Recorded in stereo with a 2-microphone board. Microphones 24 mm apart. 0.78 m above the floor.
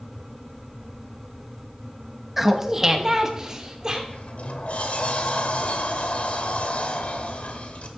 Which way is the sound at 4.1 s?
70° left (ahead or behind).